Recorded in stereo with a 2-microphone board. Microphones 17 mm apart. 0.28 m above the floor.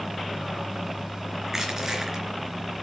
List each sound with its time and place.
1.5 s crushing: 30° right (ahead or behind), 3.5 m